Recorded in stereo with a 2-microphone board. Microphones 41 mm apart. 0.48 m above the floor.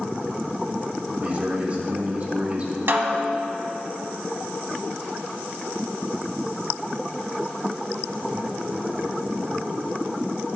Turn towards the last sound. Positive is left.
turn(degrees=-65)  # may be behind; listen again after turning